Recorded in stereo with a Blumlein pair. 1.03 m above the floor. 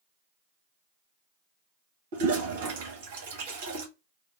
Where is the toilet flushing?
50° right, 1.3 m.